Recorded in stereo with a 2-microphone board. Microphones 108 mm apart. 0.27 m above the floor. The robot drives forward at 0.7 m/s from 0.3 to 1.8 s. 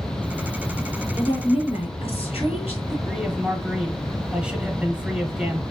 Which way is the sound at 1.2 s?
60° left (ahead or behind).